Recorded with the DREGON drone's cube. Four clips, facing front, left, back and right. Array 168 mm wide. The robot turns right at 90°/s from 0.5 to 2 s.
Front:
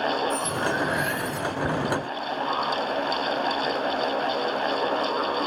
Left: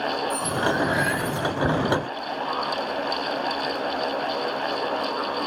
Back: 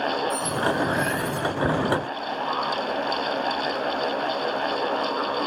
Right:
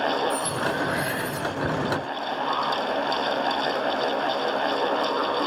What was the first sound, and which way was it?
Cutlery clinking, 60° left.